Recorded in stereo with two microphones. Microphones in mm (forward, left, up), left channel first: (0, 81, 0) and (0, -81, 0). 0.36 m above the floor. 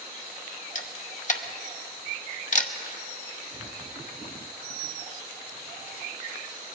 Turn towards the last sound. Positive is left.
turn(degrees=50)  # may be behind; listen again after turning